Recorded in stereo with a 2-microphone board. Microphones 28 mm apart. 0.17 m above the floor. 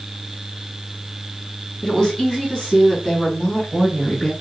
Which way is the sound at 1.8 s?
25° left (ahead or behind).